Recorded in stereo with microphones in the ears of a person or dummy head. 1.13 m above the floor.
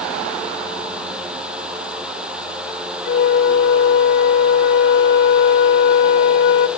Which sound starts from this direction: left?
A flute, at 3.0 s.